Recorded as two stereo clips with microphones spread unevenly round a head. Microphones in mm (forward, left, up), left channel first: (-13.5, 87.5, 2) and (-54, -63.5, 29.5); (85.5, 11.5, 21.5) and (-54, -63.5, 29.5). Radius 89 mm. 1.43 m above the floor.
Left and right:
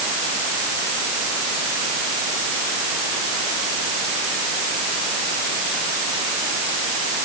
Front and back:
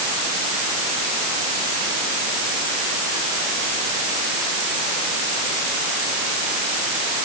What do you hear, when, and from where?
Only background noise.